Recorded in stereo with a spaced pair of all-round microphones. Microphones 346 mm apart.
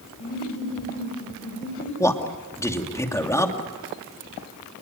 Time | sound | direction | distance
0.2 | laughter | 25° left (ahead or behind) | 6 m
2.0 | a man speaking | 10° left (ahead or behind) | 2.5 m